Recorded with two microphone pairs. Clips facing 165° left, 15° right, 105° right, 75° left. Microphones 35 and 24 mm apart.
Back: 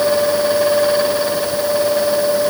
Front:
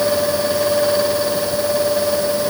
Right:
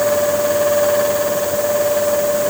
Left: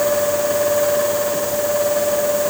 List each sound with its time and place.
Only background noise.